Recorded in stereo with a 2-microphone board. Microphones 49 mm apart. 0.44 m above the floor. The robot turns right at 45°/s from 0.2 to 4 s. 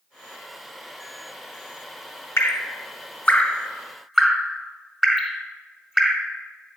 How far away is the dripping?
About 0.8 m.